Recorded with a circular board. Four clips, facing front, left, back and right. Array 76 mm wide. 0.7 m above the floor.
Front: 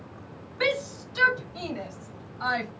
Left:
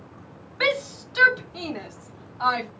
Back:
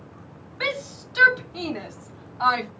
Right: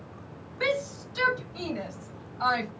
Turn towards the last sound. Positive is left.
turn(degrees=155)